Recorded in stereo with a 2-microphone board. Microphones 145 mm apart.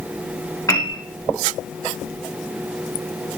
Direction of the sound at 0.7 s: 20° left (ahead or behind).